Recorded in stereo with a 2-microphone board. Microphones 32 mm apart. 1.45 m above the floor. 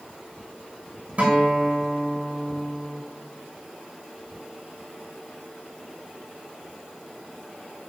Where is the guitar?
45° right (ahead or behind), 7 m.